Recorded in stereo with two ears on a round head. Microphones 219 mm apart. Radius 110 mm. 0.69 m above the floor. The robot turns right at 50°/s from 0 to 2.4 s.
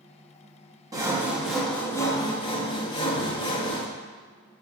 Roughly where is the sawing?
Centre.